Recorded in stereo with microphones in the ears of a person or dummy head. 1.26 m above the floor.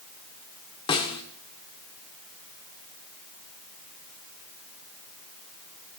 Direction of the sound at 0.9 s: 20° left (ahead or behind).